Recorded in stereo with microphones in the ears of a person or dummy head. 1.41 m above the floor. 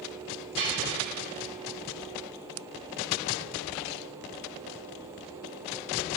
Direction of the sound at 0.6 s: 70° right (ahead or behind).